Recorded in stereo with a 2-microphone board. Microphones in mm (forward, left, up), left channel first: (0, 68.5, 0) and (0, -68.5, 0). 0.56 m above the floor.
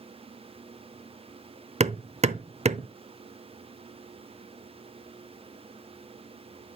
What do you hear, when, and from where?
1.8 s hammering: 50° right (ahead or behind), 0.7 m